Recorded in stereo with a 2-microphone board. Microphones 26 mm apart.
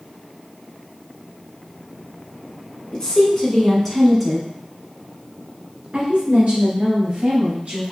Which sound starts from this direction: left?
A woman speaking, at 2.9 s.